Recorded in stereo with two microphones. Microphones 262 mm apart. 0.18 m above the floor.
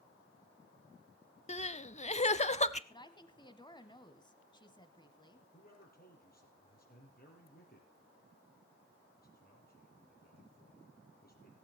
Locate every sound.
1.5 s crying: 25° left (ahead or behind), 0.5 m
2.9 s a woman speaking: 15° left (ahead or behind), 1.0 m
5.5 s a man speaking: 35° left (ahead or behind), 5 m